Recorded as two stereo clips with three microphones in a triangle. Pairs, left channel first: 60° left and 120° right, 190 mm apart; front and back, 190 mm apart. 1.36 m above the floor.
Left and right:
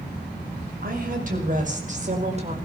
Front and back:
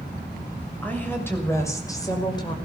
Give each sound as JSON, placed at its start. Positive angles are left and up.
{"t": 0.8, "sound": "a woman speaking", "azimuth_deg": -80, "distance_m": 6.5}